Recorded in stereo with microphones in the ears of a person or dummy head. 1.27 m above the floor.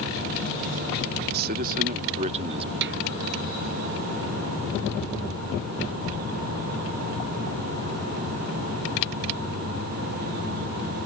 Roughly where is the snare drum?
Right.